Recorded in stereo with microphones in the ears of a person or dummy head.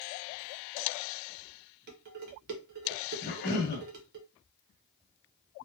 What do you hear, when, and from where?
1.9 s dishes clattering: 55° right (ahead or behind), 0.8 m
3.2 s a cough: 50° left (ahead or behind), 1.0 m